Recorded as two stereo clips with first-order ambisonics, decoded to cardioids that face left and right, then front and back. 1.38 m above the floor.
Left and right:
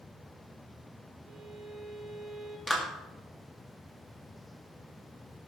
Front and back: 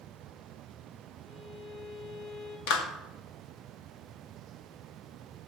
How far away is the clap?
About 2 m.